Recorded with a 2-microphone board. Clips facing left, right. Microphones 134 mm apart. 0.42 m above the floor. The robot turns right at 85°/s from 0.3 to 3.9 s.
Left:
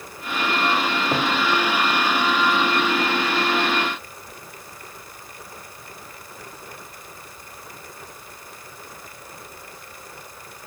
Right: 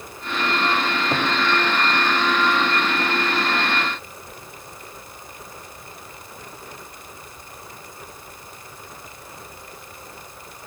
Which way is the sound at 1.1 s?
Centre (ahead or behind).